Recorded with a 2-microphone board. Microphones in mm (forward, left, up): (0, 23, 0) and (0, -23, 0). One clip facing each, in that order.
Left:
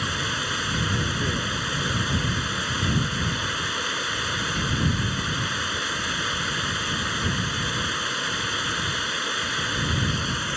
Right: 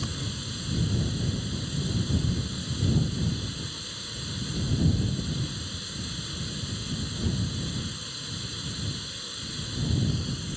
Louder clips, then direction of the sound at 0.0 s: Left 9 dB; 65° left (ahead or behind).